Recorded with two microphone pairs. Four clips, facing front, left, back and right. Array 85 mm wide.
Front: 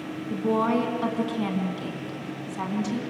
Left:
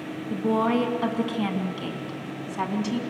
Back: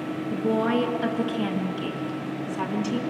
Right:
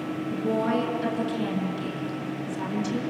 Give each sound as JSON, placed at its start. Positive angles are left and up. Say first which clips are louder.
{"t": 0.3, "sound": "a woman speaking", "louder": "left 3 dB, even", "azimuth_deg": 50, "distance_m": 3.5}